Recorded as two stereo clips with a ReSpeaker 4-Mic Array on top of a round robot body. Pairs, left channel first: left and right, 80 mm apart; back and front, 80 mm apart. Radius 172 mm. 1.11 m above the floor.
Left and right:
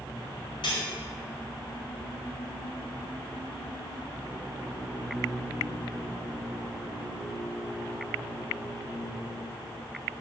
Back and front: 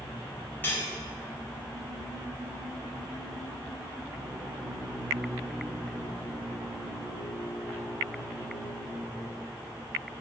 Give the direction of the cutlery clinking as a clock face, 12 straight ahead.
8 o'clock.